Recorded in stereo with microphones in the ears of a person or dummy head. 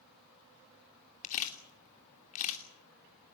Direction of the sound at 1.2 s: 40° left (ahead or behind).